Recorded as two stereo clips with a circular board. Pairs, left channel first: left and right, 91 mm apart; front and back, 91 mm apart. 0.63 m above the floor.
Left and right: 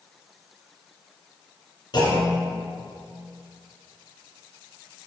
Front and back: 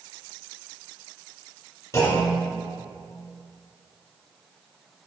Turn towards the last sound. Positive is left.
turn(degrees=55)